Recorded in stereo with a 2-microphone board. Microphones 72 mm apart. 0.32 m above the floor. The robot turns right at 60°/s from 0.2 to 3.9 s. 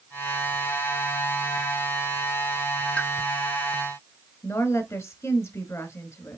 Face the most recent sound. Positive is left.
turn(degrees=35)  # may be behind; listen again after turning